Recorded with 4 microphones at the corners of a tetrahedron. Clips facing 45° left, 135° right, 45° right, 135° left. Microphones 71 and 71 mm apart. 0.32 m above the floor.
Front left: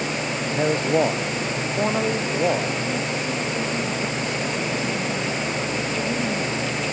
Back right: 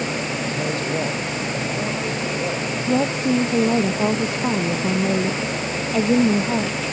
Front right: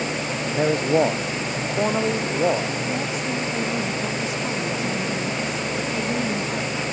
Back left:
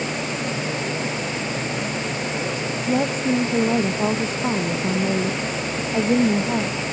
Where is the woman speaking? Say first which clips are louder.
Back right 6 dB, back left 5 dB; 170° right.